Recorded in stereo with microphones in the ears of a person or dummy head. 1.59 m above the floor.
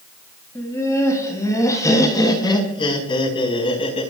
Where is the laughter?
15° left (ahead or behind), 6.5 m; by 4.1 s 35° left (ahead or behind), 4.5 m.